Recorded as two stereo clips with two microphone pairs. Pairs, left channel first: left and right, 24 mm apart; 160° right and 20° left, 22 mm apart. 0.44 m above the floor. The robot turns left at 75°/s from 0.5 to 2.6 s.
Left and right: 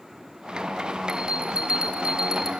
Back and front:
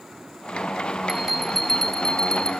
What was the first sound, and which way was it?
A bell, 45° right.